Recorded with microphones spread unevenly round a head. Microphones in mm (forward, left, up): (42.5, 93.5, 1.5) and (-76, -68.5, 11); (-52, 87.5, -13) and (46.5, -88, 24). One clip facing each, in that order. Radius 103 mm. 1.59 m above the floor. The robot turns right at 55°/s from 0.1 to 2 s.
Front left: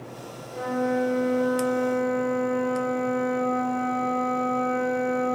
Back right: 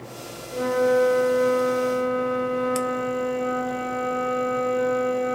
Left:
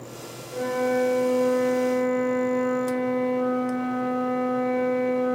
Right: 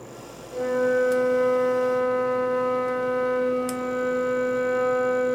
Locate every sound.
0.5 s a flute: 145° right, 0.8 m; by 5.4 s 60° right, 0.8 m